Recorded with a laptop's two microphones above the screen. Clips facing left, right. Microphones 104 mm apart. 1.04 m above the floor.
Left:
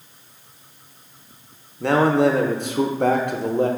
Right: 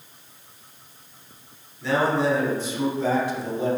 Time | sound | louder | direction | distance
1.8 | a man speaking | left 5 dB | 60° left (ahead or behind) | 0.5 m